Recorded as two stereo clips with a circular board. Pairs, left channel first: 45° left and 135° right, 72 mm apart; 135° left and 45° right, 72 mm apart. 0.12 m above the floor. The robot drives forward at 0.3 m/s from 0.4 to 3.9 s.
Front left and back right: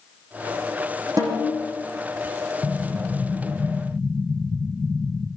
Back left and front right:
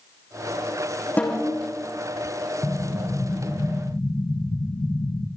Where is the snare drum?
160° right, 6.5 m.